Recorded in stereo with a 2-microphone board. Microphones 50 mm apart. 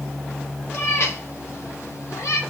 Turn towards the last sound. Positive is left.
turn(degrees=75)  # may be behind; listen again after turning